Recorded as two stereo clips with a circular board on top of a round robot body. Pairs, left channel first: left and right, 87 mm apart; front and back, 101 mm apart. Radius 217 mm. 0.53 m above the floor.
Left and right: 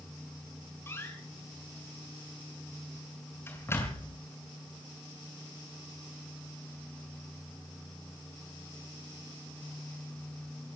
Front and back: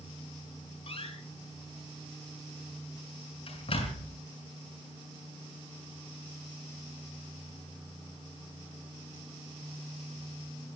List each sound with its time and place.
0.9 s a door slam: 25° left, 6 m